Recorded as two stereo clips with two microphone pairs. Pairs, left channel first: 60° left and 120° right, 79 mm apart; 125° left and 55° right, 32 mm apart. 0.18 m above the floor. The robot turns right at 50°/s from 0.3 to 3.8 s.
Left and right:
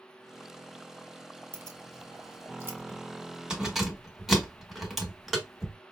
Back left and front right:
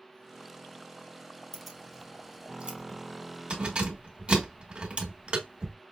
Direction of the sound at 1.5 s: 145° right.